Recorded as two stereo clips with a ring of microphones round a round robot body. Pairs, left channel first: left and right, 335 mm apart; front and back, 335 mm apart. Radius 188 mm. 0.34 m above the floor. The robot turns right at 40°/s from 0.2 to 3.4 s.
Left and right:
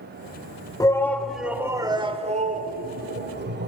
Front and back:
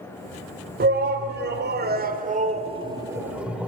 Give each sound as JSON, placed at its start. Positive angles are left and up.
{"t": 0.8, "sound": "a shout", "azimuth_deg": 160, "distance_m": 1.3}